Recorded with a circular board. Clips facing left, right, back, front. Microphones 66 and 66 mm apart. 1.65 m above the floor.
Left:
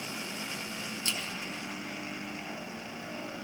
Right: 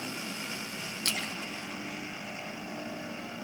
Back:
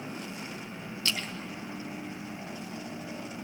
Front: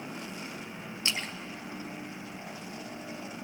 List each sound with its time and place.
1.1 s a splash: 65° right, 1.0 m